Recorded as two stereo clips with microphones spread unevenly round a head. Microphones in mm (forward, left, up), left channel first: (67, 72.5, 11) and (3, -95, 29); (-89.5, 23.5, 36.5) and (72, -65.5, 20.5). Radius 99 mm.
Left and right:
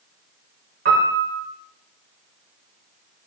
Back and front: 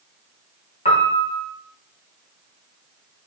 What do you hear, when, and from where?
0.8 s a piano: 150° right, 0.7 m